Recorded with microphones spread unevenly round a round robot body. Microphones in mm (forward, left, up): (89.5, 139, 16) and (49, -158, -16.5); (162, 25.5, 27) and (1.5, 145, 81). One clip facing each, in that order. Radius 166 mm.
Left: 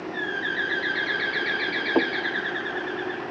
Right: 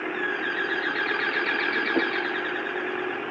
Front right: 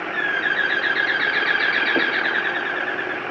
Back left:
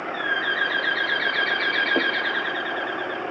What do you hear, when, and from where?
0.1 s a bird: 10° right, 3 m